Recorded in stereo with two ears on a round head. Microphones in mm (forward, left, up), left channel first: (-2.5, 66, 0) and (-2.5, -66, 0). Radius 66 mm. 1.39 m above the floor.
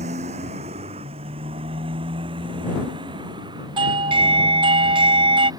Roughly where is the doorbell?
Right.